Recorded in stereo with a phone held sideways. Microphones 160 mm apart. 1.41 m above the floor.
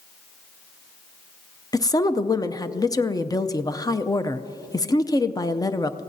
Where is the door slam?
No door slam in this recording.